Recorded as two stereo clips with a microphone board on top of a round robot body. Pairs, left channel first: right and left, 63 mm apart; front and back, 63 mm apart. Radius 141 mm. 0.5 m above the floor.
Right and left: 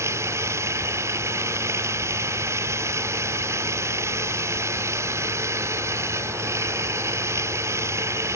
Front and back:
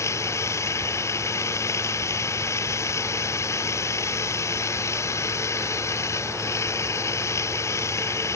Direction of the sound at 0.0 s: 45° left.